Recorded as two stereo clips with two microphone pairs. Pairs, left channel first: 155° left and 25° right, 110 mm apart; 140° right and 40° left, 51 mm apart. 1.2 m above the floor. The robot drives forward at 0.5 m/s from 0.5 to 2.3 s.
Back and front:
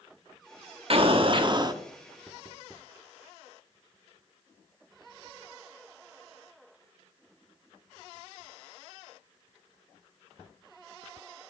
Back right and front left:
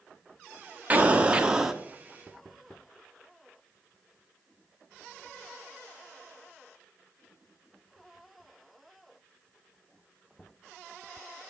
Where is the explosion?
15° right, 0.9 m; by 1.8 s 30° right, 0.6 m.